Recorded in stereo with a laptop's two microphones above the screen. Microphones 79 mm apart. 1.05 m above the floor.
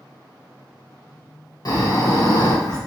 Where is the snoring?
50° left (ahead or behind), 1.3 m.